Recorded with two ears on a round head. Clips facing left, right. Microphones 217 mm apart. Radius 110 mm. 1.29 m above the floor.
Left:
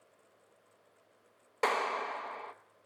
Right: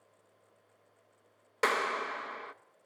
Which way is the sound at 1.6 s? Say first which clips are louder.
Right 1 dB; 25° right (ahead or behind).